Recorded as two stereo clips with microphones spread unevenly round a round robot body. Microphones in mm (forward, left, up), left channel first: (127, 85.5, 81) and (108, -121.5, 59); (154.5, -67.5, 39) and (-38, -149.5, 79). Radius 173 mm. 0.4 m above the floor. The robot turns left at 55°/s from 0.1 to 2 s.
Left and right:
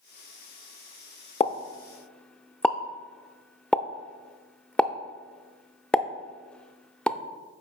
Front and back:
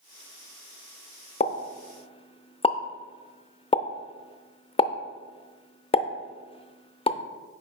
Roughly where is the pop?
Ahead left.